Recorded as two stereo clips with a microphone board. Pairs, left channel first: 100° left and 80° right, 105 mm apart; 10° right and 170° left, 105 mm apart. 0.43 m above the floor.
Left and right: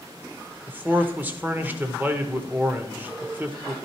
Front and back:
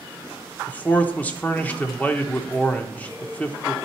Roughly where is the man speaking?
Ahead right.